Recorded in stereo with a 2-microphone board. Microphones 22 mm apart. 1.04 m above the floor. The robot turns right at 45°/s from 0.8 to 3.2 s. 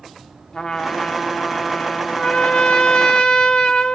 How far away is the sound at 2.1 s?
About 0.7 m.